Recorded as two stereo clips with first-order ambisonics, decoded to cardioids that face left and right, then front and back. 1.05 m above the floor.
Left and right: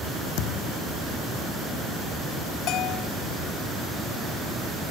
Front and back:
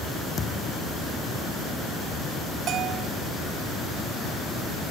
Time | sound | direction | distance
0.4 | a thud | 70° left | ?
2.7 | a bell | 130° left | ?